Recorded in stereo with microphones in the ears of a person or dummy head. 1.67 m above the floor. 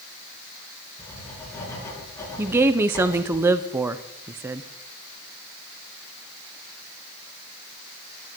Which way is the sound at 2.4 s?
15° right (ahead or behind).